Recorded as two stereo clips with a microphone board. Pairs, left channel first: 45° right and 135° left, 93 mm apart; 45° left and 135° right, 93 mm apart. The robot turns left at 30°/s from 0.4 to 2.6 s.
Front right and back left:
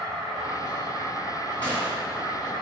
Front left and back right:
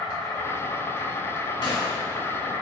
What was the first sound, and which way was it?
An insect, 95° left.